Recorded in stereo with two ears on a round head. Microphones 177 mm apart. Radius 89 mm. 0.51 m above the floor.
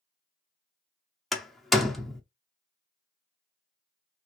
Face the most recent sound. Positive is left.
turn(degrees=0)  # may be behind; listen again after turning